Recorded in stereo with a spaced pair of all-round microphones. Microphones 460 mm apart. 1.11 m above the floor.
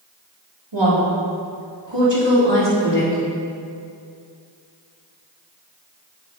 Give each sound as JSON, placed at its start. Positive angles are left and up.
{"t": 0.7, "sound": "a woman speaking", "side_deg": -70, "distance_m": 3.0}